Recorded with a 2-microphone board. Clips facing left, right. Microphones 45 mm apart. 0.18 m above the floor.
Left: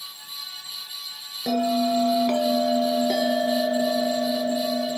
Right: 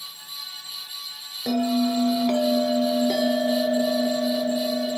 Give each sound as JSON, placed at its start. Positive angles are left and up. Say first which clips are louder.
{"t": 1.5, "sound": "a bell", "louder": "even", "side_deg": 10, "distance_m": 0.9}